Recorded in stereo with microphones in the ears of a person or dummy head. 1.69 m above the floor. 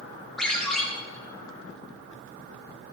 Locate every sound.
0.4 s a ringtone: 5° left (ahead or behind), 2 m